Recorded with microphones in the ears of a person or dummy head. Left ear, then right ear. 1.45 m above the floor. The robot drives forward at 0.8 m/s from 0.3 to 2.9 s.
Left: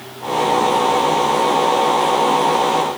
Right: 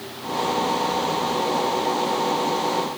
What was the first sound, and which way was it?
Only background noise.